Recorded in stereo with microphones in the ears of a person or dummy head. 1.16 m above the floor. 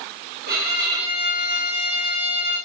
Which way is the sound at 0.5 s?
45° right (ahead or behind).